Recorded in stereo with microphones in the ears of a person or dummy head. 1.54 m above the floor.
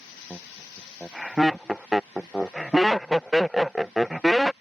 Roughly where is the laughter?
Centre.